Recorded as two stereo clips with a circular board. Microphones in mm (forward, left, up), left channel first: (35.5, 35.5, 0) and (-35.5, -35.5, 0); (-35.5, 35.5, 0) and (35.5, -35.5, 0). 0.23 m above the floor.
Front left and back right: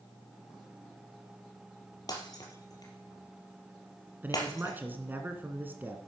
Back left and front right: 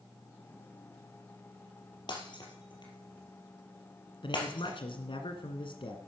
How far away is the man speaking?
About 2 m.